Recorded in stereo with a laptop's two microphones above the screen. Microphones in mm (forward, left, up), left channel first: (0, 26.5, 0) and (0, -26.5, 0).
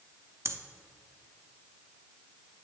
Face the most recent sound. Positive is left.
turn(degrees=-65)  # may be behind; listen again after turning